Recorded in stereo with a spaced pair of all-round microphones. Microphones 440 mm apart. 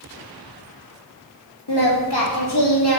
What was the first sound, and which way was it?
Singing, 60° left (ahead or behind).